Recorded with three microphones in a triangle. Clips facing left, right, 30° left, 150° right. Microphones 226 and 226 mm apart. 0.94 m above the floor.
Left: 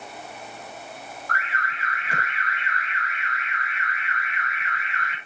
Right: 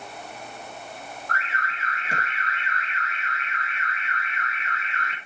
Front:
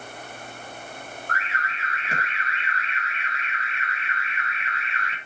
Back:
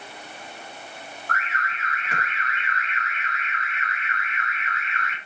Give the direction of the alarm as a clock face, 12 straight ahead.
1 o'clock.